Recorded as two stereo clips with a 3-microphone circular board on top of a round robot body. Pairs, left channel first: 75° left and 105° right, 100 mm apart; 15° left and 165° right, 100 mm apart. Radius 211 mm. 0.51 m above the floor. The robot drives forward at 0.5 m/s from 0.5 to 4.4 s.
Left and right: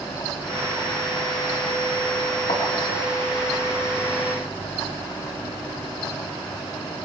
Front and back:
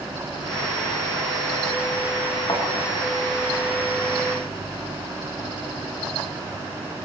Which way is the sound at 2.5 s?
75° left.